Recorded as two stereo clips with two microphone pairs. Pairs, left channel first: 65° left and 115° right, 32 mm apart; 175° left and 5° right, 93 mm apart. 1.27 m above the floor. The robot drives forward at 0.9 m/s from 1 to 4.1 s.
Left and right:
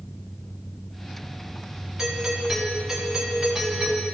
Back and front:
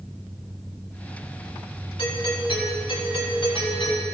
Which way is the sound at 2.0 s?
170° left.